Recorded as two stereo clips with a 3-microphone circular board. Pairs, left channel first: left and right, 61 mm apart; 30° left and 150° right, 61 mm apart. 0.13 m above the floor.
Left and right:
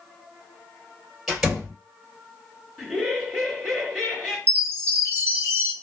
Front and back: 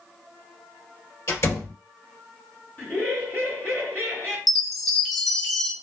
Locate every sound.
1.3 s a door slam: 5° right, 2.5 m
2.8 s laughter: 10° left, 1.9 m
4.5 s a chime: 55° right, 0.6 m